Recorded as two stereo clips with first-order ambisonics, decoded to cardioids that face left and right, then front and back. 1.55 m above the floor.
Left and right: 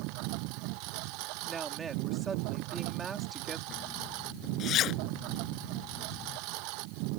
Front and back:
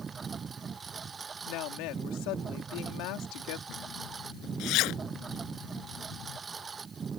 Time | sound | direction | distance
0.0 | a lawn mower | 110° right | ?
1.5 | a woman speaking | 20° right | ?
3.7 | a zipper | 40° left | ?